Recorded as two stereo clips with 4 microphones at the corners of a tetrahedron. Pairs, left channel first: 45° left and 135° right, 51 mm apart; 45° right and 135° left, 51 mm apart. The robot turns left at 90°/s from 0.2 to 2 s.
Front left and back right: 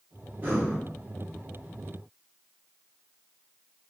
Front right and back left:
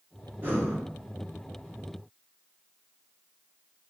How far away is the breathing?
About 1.5 m.